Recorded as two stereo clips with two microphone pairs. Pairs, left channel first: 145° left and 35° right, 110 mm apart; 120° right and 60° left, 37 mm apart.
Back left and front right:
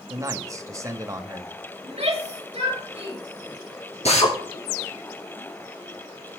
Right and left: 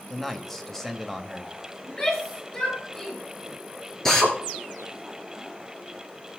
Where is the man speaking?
55° right, 0.9 m.